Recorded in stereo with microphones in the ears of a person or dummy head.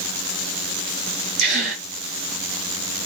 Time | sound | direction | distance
1.4 | a gasp | 55° right (ahead or behind) | 3.5 m